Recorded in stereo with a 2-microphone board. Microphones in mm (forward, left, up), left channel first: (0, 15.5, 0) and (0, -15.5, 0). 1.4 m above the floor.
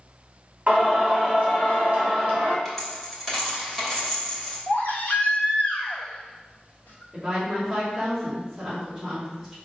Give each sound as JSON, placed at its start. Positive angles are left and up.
{"t": 0.7, "sound": "singing", "side_deg": -50, "distance_m": 3.0}
{"t": 2.6, "sound": "a dropped coin", "side_deg": 5, "distance_m": 2.5}
{"t": 4.7, "sound": "a baby crying", "side_deg": 75, "distance_m": 1.6}
{"t": 7.1, "sound": "a woman speaking", "side_deg": -10, "distance_m": 3.5}